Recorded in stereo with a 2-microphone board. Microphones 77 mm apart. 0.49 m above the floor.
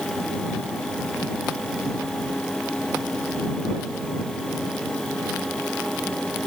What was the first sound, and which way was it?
Only background noise.